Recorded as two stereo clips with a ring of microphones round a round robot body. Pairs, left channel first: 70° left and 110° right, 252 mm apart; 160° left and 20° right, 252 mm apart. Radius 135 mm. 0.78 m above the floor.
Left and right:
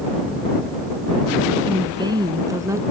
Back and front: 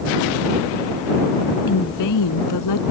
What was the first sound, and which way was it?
A woman speaking, 175° left.